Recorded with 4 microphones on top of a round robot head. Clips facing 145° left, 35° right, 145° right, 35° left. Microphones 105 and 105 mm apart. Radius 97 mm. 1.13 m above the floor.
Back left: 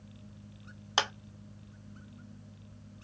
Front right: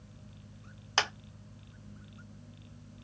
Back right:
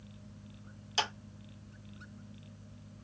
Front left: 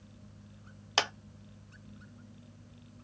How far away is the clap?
About 0.7 m.